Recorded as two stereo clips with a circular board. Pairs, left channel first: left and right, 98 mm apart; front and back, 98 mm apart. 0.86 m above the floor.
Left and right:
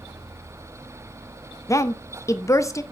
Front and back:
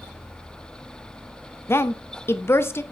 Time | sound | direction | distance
1.7 | a woman speaking | 50° left | 0.5 m